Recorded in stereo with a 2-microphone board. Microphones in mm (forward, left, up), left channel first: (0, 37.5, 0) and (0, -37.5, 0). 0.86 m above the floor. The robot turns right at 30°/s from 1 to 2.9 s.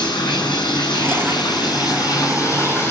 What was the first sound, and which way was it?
Running water, 90° left.